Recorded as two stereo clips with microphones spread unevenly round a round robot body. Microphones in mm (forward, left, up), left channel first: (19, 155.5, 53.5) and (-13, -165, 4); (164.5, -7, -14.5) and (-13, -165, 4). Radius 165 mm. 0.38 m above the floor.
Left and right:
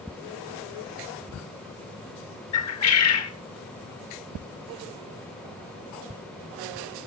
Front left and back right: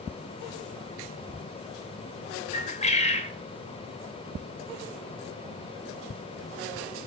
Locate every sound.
2.5 s a bird: 80° left, 1.8 m